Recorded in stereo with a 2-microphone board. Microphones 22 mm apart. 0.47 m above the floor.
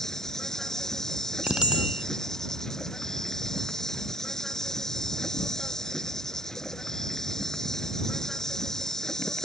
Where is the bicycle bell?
30° right (ahead or behind).